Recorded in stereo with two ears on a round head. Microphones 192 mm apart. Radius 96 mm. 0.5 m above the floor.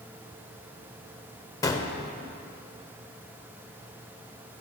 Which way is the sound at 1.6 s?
15° left (ahead or behind).